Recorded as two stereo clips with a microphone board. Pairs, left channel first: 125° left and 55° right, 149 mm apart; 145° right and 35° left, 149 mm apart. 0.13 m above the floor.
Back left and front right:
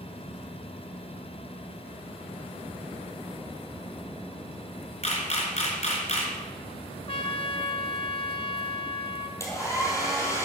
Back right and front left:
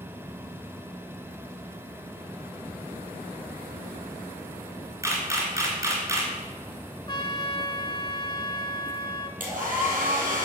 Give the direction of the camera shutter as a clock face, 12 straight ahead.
9 o'clock.